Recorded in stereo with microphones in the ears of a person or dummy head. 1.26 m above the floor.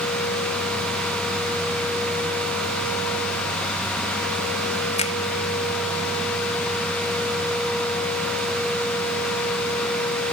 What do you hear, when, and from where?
5.0 s a finger snap: 35° left (ahead or behind)